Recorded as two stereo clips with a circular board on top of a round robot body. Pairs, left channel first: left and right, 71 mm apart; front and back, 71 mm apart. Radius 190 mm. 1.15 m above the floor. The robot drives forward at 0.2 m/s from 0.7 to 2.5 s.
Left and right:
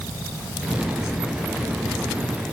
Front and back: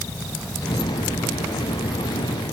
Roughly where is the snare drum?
I don't hear a snare drum.